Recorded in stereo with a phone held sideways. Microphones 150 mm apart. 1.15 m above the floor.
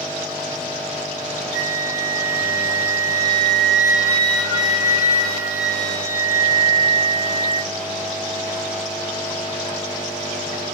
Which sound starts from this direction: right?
A flute, at 1.5 s.